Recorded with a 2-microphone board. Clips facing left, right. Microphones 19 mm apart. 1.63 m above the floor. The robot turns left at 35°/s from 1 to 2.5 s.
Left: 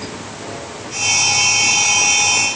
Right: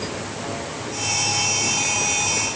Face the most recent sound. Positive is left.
No sound to turn to.